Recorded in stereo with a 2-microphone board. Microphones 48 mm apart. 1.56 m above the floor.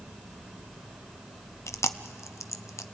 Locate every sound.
1.7 s chewing: 70° left (ahead or behind), 0.7 m